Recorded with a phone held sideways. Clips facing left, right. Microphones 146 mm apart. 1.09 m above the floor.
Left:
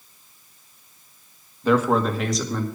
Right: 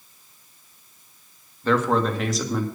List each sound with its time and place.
1.6 s a man speaking: 15° left (ahead or behind), 1.6 m; by 2.6 s 5° right (ahead or behind), 1.9 m